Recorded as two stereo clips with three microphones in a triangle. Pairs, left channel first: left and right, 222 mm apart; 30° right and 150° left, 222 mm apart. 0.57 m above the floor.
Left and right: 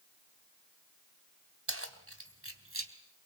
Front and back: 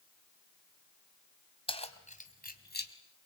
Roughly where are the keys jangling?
Right.